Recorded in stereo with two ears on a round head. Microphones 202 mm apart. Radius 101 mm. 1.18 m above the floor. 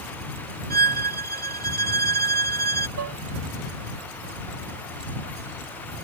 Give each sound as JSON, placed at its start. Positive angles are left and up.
{"t": 0.7, "sound": "a violin", "side_deg": -45}
{"t": 3.0, "sound": "dishes clattering", "side_deg": -85}